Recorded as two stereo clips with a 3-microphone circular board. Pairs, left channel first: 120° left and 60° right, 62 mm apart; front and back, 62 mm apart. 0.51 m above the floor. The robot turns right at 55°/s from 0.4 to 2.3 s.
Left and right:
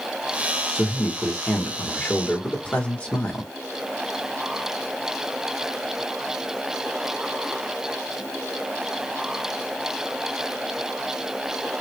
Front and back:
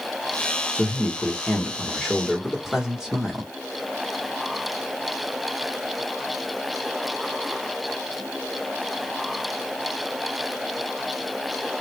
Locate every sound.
0.8 s a man speaking: 30° left, 1.2 m; by 3.5 s 115° left, 1.2 m